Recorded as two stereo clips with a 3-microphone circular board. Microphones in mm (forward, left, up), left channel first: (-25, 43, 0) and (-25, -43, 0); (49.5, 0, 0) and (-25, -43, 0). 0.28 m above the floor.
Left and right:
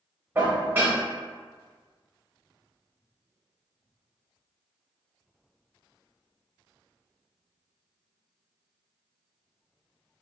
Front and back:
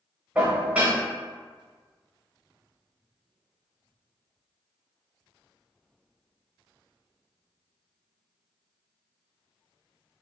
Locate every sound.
0.3 s dishes clattering: 100° right, 0.7 m